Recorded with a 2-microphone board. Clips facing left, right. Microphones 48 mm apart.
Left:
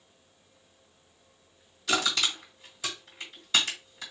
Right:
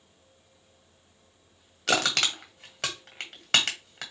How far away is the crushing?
About 1.4 m.